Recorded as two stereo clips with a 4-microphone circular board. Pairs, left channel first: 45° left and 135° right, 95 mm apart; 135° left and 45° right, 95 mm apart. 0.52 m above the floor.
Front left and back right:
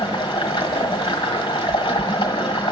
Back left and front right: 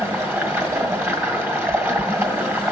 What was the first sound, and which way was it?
Running water, 20° left.